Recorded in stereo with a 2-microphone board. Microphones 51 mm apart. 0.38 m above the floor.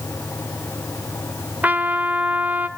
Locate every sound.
1.6 s a trumpet: 35° right (ahead or behind), 1.4 m